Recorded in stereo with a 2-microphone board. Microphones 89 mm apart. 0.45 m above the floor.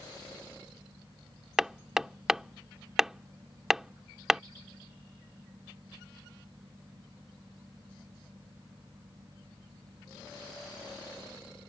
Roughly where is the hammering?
Centre.